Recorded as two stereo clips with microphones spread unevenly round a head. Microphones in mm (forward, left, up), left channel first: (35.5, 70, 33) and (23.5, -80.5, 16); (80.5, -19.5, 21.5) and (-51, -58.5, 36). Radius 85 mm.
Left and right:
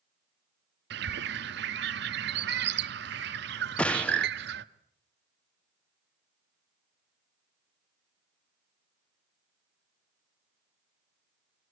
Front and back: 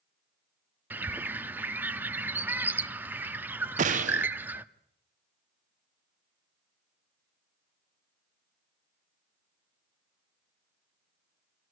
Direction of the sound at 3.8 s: 170° left.